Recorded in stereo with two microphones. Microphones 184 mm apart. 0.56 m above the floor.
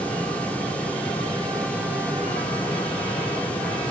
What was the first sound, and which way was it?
Only background noise.